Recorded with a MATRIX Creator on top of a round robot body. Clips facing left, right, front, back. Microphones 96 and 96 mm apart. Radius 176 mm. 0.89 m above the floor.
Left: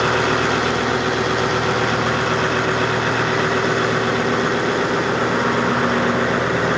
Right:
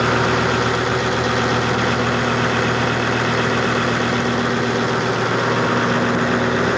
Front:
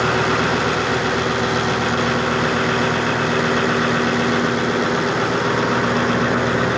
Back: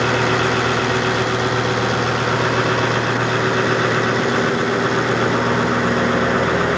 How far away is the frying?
No frying in this recording.